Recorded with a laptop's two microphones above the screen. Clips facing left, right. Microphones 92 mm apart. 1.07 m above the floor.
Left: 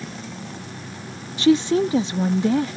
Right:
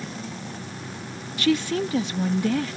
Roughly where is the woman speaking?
Left.